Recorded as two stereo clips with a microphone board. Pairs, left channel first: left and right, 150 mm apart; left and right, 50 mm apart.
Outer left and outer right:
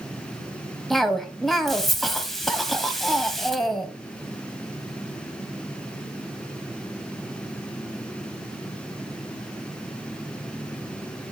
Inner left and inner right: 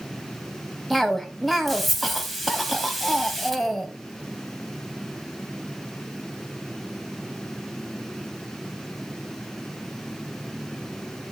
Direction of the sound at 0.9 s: Centre (ahead or behind).